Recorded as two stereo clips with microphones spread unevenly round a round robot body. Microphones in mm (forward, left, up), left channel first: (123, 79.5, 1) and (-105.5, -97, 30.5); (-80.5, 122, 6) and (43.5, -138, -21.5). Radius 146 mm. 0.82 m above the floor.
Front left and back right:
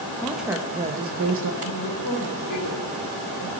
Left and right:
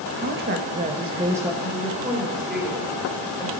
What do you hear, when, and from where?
0.2 s a woman speaking: 40° right, 1.2 m; by 1.5 s 140° right, 1.1 m
1.6 s a woman speaking: 25° left, 3.5 m